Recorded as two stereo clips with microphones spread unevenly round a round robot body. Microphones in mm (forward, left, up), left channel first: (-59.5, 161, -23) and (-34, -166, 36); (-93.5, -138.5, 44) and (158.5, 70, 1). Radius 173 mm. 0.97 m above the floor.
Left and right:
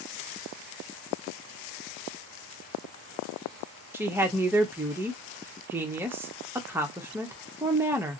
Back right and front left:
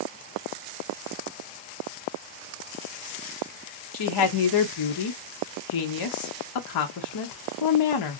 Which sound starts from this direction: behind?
A woman speaking, at 3.9 s.